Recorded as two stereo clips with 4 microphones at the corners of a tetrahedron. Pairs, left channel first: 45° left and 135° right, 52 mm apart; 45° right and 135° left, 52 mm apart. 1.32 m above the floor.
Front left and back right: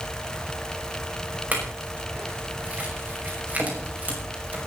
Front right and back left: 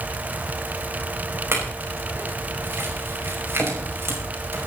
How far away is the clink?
About 6 m.